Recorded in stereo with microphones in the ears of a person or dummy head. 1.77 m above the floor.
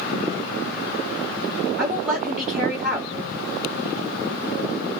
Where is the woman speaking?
Centre (ahead or behind), 1.1 m.